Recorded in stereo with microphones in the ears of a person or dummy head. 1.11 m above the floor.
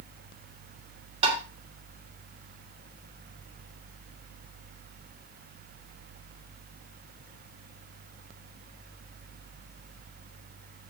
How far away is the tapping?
About 3 m.